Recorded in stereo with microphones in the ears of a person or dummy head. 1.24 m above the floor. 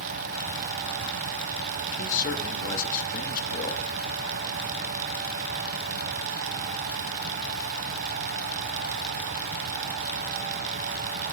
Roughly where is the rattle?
No rattle in this recording.